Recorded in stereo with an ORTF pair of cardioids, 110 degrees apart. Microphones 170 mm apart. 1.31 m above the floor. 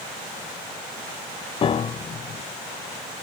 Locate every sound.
1.6 s a piano: 30° left